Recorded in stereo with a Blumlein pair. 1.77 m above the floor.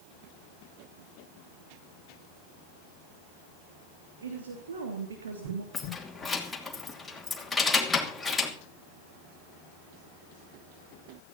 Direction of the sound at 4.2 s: 65° right.